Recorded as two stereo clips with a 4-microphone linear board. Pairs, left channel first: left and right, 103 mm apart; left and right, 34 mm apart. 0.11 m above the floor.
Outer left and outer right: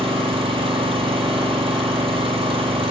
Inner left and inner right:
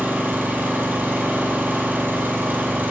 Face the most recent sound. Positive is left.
turn(degrees=-65)  # may be behind; listen again after turning